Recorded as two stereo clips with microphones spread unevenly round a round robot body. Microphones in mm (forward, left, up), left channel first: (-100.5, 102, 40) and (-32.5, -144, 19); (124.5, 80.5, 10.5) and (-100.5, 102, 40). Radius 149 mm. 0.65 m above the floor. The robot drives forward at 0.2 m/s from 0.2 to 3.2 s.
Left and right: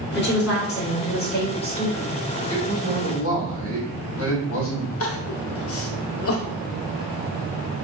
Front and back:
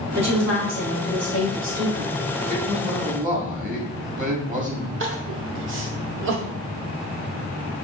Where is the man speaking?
115° left, 1.2 m; by 4.9 s 120° left, 1.3 m.